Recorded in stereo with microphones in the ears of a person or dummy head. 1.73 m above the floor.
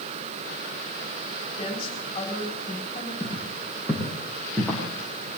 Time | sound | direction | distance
1.6 | a woman speaking | 30° left (ahead or behind) | 7.5 m
3.2 | footsteps | 5° left (ahead or behind) | 7 m